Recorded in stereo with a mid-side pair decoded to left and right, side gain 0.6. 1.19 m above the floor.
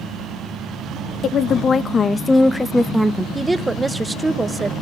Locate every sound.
1.2 s a woman speaking: 45° left, 1.4 m; by 3.2 s 10° right, 1.1 m
3.4 s a woman speaking: 15° right, 1.0 m